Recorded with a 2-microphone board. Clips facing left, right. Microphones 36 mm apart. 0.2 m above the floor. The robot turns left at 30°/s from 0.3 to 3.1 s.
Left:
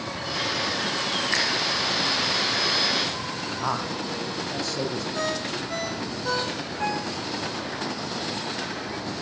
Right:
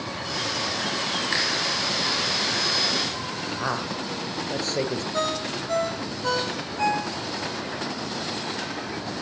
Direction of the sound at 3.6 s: 50° right (ahead or behind).